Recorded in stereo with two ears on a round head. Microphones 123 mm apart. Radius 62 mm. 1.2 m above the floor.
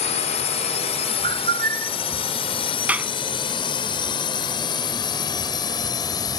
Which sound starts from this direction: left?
A drone, at 0.0 s.